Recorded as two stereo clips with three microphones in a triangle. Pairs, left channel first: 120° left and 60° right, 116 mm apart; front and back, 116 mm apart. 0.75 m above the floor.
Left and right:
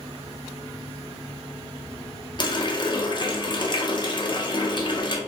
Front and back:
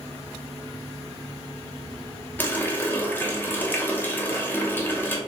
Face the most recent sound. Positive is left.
turn(degrees=70)